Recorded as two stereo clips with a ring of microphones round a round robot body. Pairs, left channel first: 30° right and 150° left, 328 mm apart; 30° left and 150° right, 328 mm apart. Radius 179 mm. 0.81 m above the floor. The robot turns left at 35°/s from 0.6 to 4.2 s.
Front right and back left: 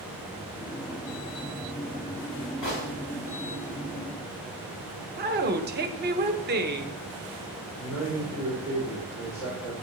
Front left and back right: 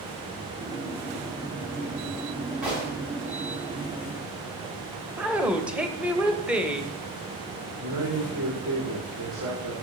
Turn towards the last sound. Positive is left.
turn(degrees=-120)